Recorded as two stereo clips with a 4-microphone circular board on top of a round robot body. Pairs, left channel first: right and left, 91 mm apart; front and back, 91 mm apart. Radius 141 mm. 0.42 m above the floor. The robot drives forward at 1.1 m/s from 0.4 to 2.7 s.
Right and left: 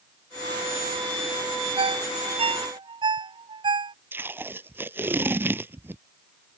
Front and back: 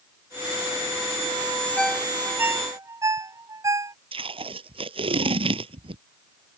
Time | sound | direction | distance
1.8 | a ringtone | 80° left | ?
4.1 | tape being pulled | 160° left | ?